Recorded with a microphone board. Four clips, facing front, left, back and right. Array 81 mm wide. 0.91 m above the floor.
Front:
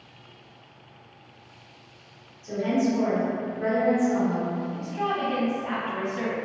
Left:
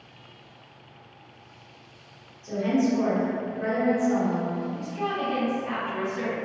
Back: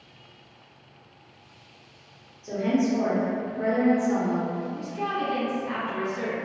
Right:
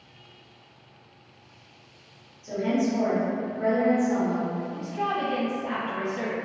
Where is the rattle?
I don't hear a rattle.